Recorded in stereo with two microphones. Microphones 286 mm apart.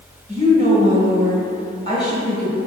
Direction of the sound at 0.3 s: 20° left (ahead or behind).